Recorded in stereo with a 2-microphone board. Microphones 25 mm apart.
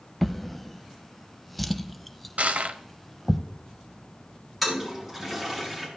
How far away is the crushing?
About 0.7 m.